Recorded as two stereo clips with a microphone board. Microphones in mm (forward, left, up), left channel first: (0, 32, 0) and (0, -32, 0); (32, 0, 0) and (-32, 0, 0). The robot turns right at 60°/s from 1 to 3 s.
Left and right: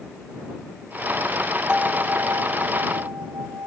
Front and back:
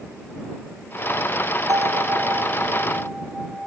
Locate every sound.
1.7 s a bell: 165° right; by 3.7 s 85° right